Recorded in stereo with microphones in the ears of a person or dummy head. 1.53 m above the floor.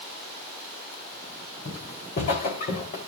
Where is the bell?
I don't hear a bell.